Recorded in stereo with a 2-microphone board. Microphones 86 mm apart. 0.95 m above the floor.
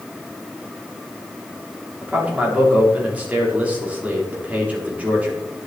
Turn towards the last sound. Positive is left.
turn(degrees=-15)  # may be behind; listen again after turning